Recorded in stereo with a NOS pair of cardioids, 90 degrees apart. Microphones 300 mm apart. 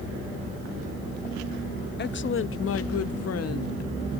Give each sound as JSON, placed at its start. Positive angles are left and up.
{"t": 2.0, "sound": "a woman speaking", "azimuth_deg": 35, "distance_m": 0.8}